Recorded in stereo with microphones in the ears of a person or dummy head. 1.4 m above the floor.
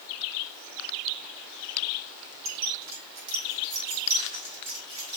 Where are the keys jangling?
80° right, 3 m; by 5.2 s 50° right (ahead or behind), 6 m.